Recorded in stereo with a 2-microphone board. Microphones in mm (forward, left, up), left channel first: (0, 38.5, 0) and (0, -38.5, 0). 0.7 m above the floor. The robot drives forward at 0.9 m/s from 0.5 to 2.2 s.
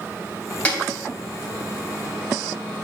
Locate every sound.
0.7 s a snare drum: 15° left (ahead or behind), 3 m